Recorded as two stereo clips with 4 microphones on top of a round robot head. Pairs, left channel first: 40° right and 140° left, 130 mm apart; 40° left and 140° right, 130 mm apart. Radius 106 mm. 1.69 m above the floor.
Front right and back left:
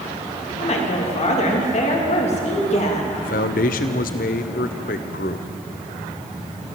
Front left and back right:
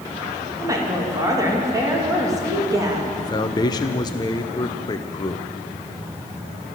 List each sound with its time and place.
0.6 s a woman speaking: 75° right, 3.5 m
3.2 s a man speaking: 20° right, 0.9 m